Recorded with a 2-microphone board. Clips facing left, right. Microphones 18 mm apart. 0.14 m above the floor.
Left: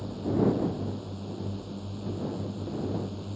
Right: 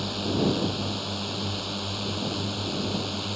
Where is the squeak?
No squeak in this recording.